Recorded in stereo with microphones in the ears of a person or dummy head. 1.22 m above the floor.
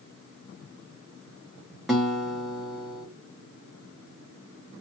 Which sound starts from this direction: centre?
A guitar, at 1.9 s.